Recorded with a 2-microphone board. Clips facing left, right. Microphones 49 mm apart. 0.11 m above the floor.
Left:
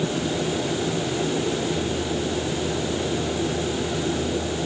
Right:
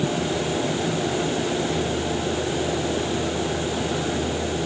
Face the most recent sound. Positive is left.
No sound to turn to.